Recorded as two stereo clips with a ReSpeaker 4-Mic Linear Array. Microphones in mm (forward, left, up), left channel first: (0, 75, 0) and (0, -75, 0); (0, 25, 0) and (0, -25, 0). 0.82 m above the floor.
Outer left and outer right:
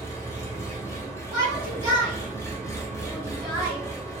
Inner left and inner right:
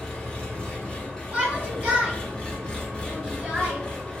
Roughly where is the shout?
Centre.